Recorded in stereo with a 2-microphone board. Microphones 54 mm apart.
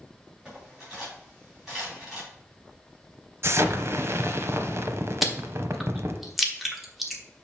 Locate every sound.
0.5 s cutlery clinking: 10° right (ahead or behind), 4 m
3.4 s an explosion: 55° right (ahead or behind), 0.8 m
5.2 s chewing: 5° right (ahead or behind), 1.1 m